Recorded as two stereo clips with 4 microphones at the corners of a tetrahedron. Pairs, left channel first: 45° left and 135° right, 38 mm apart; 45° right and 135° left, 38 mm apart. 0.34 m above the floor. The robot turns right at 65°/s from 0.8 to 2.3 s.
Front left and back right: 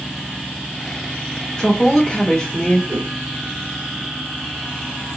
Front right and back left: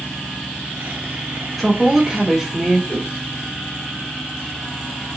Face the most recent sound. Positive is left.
turn(degrees=-90)